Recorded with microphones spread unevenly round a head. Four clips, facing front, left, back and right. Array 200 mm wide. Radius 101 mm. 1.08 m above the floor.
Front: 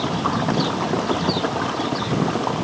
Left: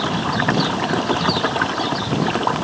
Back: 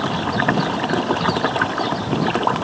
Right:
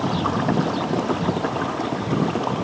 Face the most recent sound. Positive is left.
No sound to turn to.